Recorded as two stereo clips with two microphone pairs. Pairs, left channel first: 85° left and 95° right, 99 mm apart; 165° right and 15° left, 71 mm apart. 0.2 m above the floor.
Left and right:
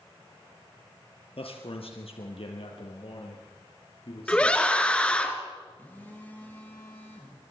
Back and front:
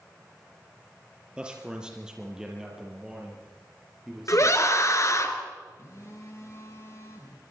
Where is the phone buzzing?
155° left, 6 m.